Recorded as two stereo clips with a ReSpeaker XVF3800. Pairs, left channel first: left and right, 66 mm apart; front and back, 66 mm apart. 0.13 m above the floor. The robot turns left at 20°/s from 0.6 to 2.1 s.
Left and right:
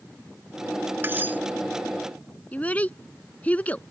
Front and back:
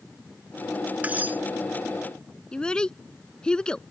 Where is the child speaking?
60° left.